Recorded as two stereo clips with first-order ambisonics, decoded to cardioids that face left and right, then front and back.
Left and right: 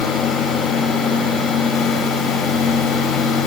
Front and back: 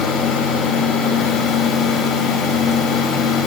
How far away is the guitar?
No guitar in this recording.